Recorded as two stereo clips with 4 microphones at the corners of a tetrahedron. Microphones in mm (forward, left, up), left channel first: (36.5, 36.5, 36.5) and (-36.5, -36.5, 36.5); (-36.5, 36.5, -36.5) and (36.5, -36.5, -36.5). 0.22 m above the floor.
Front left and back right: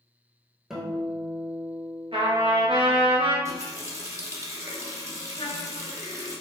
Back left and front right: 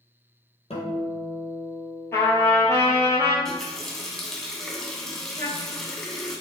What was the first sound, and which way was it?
A guitar, 140° left.